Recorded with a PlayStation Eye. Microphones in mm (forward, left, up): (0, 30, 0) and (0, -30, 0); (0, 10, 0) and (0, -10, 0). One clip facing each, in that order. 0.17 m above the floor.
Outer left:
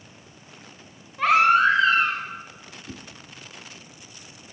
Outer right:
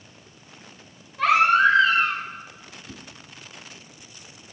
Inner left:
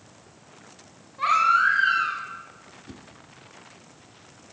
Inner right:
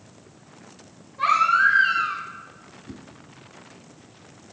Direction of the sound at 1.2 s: 5° left (ahead or behind).